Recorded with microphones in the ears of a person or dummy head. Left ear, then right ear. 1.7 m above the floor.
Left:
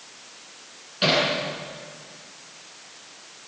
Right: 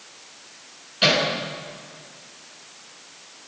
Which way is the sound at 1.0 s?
10° right (ahead or behind).